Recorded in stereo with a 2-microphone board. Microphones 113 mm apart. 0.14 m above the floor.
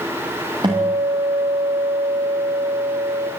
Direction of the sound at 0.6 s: 40° right (ahead or behind).